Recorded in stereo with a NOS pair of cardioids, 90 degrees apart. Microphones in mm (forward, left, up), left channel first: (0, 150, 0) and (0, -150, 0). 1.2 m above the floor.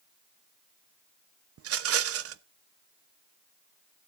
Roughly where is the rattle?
Ahead right.